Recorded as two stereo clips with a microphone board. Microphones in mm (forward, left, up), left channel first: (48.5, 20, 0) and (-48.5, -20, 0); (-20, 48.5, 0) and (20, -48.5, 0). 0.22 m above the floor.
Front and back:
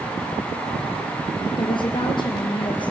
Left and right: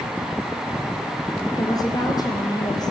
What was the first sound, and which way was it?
A woman speaking, 60° left.